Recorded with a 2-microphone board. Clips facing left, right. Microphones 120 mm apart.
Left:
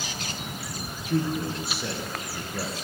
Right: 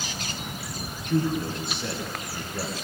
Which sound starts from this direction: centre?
A man speaking, at 1.1 s.